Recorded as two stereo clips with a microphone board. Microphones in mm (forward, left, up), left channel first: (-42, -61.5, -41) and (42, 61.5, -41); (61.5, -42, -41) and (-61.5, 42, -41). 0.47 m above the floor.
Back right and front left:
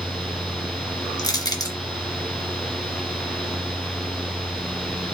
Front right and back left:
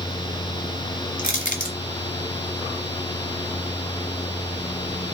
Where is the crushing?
60° right, 1.6 m.